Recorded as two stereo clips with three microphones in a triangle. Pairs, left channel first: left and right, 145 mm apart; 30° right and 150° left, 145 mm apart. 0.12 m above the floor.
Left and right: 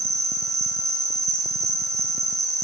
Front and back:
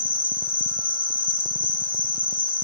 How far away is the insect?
About 0.8 m.